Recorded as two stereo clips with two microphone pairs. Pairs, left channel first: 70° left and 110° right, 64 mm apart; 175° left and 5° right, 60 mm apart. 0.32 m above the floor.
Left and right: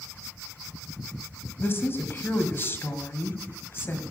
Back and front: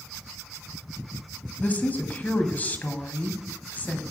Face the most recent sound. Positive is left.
turn(degrees=115)